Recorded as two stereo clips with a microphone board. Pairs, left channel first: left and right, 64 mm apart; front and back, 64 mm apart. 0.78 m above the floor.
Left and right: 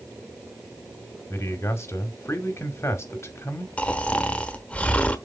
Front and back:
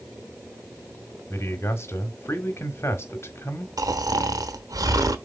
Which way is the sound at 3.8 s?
160° left.